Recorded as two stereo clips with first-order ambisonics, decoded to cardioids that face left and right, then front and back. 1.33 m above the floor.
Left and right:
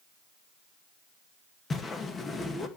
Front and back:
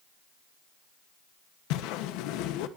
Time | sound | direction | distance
1.7 | a whoosh | 20° left | 2 m